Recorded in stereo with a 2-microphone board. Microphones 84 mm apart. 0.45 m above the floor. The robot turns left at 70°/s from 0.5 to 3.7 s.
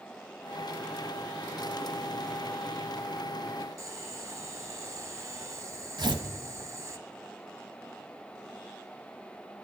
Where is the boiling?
35° right (ahead or behind), 0.7 m.